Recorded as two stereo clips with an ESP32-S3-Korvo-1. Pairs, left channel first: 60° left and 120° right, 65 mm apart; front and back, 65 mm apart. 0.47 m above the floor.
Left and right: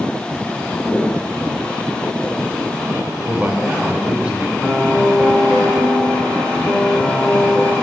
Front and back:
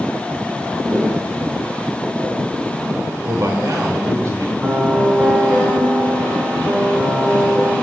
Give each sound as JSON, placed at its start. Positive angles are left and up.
{"t": 0.9, "sound": "footsteps", "azimuth_deg": 125, "distance_m": 2.0}
{"t": 3.2, "sound": "a man speaking", "azimuth_deg": 170, "distance_m": 1.3}
{"t": 4.6, "sound": "a piano", "azimuth_deg": 115, "distance_m": 3.5}